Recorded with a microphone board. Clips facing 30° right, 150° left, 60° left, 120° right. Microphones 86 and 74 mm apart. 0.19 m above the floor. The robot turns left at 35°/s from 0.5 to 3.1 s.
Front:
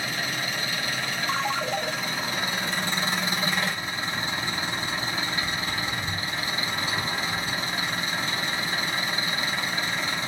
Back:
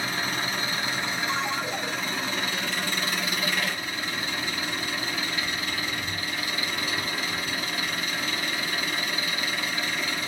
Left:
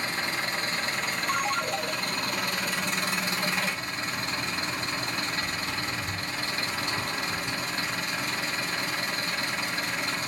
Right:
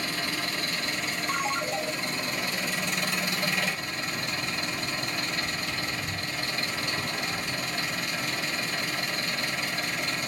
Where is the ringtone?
20° right, 0.7 m; by 1.9 s 40° right, 0.7 m.